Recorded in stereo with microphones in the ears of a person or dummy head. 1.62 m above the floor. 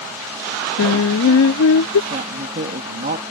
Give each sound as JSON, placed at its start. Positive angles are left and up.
{"t": 0.8, "sound": "singing", "side_deg": 80}
{"t": 2.1, "sound": "a woman speaking", "side_deg": -45}